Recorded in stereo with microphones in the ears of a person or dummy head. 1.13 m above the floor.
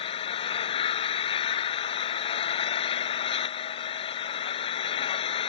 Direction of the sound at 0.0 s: 35° left (ahead or behind).